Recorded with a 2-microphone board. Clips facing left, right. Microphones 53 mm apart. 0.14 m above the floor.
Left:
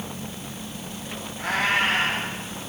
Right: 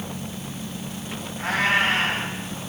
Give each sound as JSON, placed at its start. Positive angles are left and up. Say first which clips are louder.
{"t": 1.4, "sound": "a cat meowing", "louder": "right 2 dB", "side_deg": -25, "distance_m": 6.5}